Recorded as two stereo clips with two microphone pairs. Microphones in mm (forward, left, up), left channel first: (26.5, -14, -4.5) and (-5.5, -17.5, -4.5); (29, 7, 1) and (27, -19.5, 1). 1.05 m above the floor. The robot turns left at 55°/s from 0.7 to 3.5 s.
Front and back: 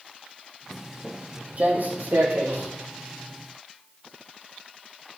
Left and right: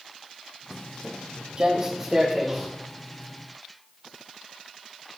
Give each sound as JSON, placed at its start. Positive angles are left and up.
{"t": 0.7, "sound": "footsteps", "azimuth_deg": -90, "distance_m": 1.1}